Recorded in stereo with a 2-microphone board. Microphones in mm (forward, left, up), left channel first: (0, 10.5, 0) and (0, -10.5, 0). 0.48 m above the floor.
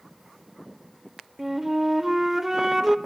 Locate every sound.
1.4 s a flute: 10° right (ahead or behind), 0.7 m